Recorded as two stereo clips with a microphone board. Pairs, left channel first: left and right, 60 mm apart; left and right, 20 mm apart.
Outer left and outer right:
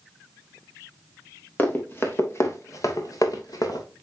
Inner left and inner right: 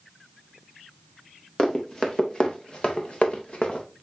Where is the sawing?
I don't hear sawing.